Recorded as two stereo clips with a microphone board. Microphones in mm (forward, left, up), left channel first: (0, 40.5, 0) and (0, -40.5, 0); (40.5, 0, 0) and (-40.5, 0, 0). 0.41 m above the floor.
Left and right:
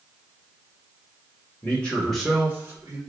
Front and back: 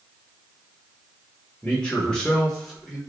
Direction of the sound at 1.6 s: 60° left.